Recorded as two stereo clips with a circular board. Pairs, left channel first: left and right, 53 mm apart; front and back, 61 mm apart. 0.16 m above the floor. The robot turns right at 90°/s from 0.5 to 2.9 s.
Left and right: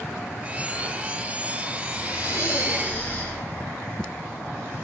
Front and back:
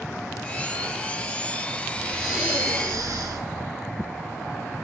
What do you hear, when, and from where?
2.0 s breathing: 75° left, 6 m; by 3.4 s 155° left, 6 m